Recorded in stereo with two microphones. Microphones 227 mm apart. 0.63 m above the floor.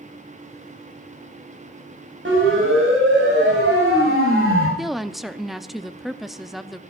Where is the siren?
60° right (ahead or behind), 6 m; by 4.7 s 65° right (ahead or behind), 7.5 m.